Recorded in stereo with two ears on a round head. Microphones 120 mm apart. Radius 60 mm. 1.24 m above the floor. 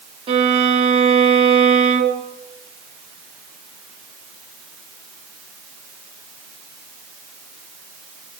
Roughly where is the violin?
Right.